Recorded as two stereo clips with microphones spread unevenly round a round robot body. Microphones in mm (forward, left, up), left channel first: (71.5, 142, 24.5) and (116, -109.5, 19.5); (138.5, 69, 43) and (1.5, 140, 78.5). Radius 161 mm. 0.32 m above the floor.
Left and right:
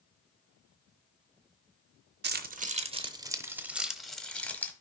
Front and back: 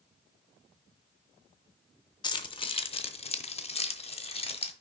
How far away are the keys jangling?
About 0.8 m.